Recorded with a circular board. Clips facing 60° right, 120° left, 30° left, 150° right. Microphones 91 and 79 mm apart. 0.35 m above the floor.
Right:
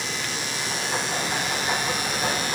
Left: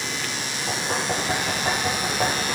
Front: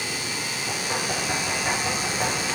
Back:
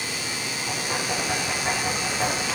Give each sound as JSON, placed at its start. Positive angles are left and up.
{"t": 0.7, "sound": "knocking", "azimuth_deg": 120, "distance_m": 9.0}